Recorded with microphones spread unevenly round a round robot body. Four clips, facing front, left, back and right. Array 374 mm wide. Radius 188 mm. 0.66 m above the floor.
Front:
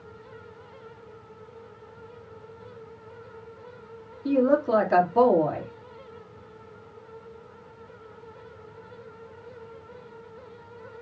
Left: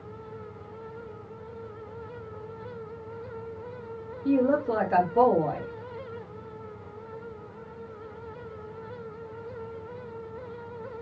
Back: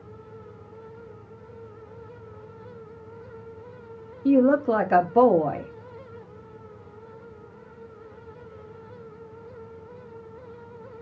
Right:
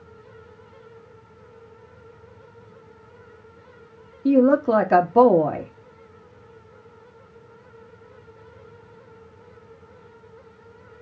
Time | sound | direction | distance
4.2 | a woman speaking | 100° right | 1.1 m